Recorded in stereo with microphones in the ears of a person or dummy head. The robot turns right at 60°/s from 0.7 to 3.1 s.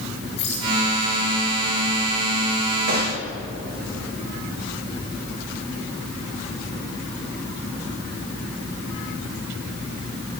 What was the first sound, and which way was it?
A rattle, 35° left (ahead or behind).